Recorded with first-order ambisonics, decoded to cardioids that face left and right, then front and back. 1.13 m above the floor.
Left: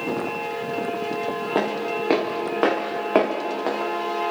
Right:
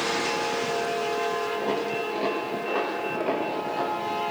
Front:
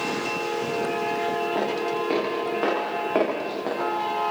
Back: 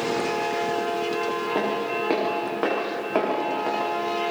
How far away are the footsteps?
About 7.5 m.